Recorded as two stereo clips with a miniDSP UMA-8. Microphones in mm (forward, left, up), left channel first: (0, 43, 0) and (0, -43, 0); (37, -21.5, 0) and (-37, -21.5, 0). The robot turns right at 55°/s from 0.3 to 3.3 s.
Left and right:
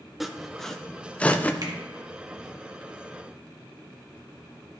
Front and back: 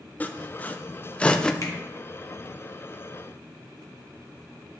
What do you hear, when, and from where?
0.2 s sawing: 5° right, 0.5 m; by 1.5 s 60° left, 0.5 m
1.6 s a finger snap: 50° right, 1.6 m; by 1.7 s 40° right, 1.6 m